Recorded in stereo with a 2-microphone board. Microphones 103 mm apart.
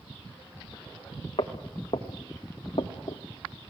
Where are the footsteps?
80° left, 2 m; by 3.2 s 55° left (ahead or behind), 1.9 m.